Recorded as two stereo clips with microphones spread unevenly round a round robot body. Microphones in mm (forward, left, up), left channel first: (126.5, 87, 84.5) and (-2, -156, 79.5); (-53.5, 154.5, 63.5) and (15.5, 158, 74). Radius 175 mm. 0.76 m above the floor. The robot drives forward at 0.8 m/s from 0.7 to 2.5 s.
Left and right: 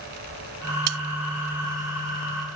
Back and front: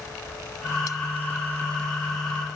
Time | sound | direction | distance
0.9 | cutlery clinking | 110° right | ?